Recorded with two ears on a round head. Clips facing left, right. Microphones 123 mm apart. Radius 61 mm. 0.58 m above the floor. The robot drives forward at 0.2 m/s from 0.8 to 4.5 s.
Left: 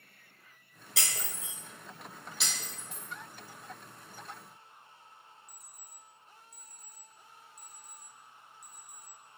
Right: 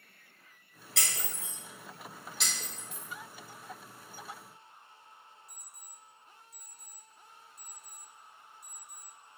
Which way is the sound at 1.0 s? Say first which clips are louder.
Even; centre (ahead or behind).